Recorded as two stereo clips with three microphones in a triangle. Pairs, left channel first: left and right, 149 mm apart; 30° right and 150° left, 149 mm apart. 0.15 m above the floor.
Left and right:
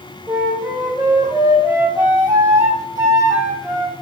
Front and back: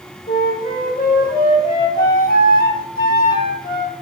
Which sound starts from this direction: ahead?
A flute, at 0.3 s.